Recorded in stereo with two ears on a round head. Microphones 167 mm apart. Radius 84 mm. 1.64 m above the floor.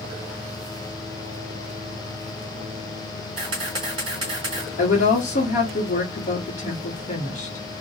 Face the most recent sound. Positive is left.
turn(degrees=45)  # may be behind; listen again after turning